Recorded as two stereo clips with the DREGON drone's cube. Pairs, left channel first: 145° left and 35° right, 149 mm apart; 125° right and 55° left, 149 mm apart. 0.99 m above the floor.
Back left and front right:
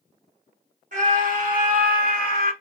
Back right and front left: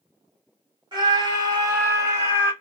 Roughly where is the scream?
Ahead.